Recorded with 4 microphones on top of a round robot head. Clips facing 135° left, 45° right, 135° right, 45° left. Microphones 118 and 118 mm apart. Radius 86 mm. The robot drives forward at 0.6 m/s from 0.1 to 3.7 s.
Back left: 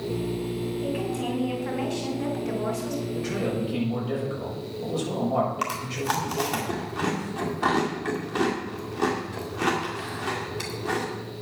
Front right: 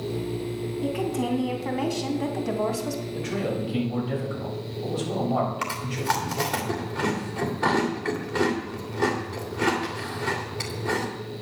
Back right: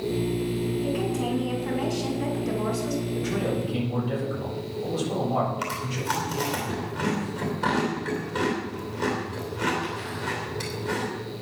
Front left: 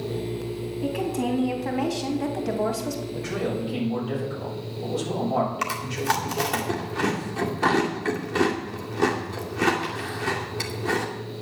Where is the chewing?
55° left, 2 m.